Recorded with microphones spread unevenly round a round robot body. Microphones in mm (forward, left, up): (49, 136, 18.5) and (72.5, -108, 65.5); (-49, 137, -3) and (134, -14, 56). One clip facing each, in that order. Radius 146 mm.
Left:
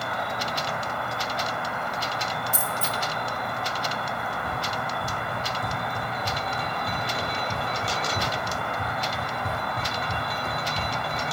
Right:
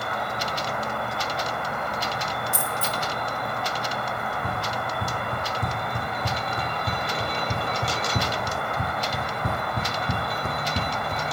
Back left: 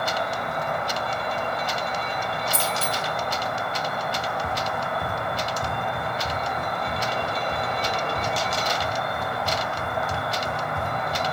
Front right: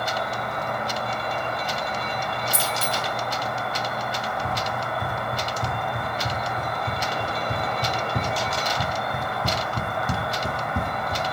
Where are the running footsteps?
130° right, 3 m; by 11.2 s 35° right, 1.8 m.